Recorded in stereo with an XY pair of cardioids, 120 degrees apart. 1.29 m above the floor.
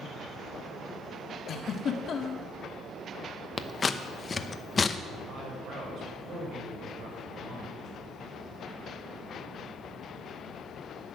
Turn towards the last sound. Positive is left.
turn(degrees=-60)